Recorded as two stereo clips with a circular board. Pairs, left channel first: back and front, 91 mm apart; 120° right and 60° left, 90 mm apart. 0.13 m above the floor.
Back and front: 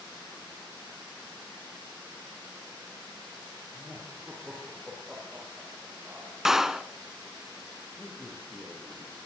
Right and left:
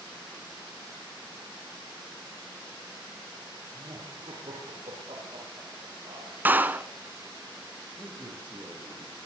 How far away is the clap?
About 0.9 m.